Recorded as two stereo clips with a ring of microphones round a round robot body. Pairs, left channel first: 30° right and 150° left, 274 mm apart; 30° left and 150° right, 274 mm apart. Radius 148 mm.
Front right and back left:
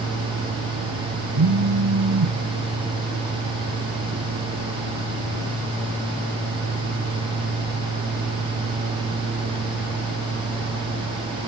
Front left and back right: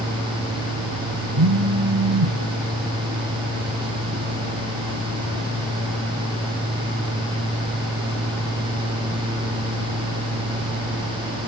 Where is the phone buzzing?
175° right, 1.2 m.